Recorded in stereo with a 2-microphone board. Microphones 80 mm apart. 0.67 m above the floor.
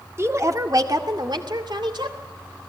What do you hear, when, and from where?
0.2 s a woman speaking: 35° right (ahead or behind), 1.7 m; by 2.2 s 70° right (ahead or behind), 3 m